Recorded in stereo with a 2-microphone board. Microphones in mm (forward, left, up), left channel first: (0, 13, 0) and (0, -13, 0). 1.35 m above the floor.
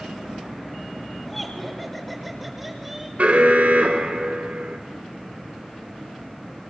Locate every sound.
1.2 s laughter: 5° left (ahead or behind), 5.5 m; by 3.1 s 15° right (ahead or behind), 6 m
3.2 s an alarm: 70° right (ahead or behind), 4 m